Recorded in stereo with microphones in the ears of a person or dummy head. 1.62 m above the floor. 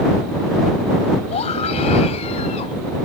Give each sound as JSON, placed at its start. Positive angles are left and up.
{"t": 1.3, "sound": "a scream", "side_deg": 40}